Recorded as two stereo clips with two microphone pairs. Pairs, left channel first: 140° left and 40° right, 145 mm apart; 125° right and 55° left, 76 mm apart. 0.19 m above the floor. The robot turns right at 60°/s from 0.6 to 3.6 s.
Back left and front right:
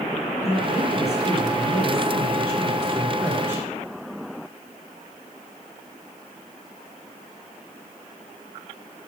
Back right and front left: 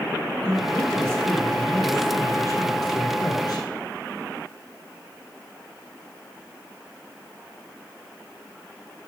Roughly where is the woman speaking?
Left.